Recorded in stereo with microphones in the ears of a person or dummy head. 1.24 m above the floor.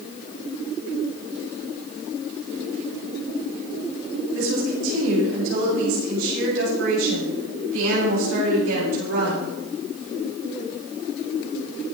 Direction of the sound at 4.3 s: 75° right (ahead or behind).